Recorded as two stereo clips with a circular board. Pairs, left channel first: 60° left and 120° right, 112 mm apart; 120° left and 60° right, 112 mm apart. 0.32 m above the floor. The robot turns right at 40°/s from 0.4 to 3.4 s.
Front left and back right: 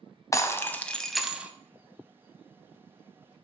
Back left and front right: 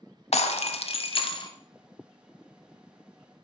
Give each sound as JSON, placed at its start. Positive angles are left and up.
{"t": 0.3, "sound": "breaking glass", "azimuth_deg": 120, "distance_m": 0.8}